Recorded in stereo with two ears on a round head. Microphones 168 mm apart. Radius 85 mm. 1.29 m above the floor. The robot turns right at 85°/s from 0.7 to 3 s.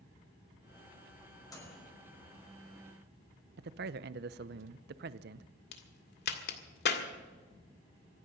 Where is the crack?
60° left (ahead or behind), 1.9 m.